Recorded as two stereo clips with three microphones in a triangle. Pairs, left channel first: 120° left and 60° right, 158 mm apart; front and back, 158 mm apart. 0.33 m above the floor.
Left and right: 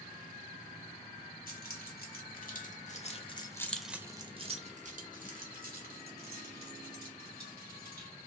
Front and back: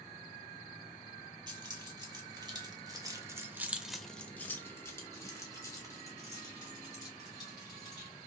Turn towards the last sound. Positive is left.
turn(degrees=-65)